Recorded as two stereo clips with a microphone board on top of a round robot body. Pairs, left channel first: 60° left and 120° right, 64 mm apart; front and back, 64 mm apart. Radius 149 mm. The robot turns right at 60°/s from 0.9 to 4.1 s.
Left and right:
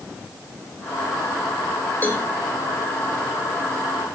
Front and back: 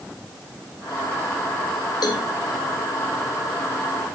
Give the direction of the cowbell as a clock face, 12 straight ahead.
12 o'clock.